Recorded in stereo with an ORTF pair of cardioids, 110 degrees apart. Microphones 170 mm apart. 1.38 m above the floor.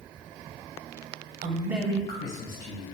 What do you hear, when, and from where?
1.4 s a man speaking: 55° right, 0.7 m; by 2.9 s 60° left, 1.8 m